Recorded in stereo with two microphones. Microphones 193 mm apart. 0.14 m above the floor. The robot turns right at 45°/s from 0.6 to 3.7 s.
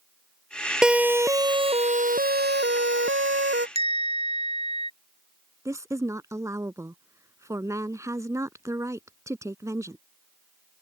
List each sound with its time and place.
0.8 s a siren: 5° right (ahead or behind); by 3.6 s 70° right (ahead or behind)
3.8 s a bell: 30° right (ahead or behind)
5.7 s a woman speaking: 15° right (ahead or behind)